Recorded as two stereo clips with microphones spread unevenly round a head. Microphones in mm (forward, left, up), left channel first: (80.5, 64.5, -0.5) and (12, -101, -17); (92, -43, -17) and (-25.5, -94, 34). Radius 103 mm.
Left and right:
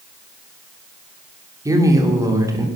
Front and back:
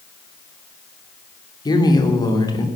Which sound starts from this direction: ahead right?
A man speaking, at 1.6 s.